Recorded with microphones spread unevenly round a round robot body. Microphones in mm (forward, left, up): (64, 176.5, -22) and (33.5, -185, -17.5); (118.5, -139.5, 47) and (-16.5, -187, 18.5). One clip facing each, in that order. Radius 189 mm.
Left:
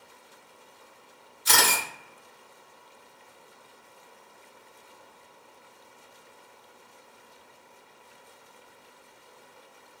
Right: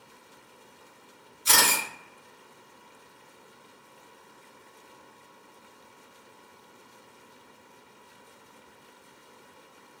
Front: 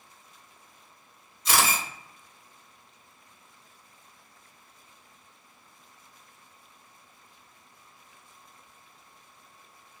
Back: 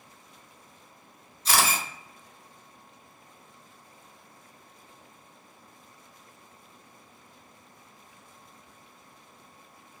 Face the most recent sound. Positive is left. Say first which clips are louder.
# left 1 dB, even
turn(degrees=-160)